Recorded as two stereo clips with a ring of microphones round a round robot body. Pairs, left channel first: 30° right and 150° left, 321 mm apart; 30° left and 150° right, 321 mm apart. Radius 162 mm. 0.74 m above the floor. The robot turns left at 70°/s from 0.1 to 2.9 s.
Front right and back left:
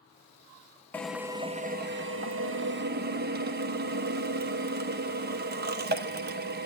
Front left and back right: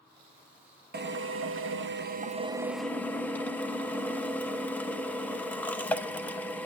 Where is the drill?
110° right, 0.9 m; by 6.7 s 110° left, 0.9 m.